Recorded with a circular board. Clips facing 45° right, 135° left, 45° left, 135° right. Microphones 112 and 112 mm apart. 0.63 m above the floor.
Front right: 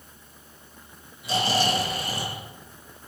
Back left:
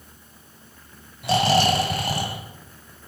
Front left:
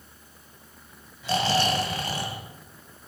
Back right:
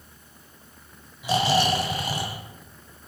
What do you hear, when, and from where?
1.2 s snoring: 145° left, 2 m